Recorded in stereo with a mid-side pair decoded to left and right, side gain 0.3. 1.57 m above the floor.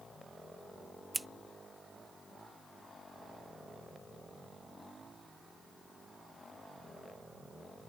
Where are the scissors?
20° right.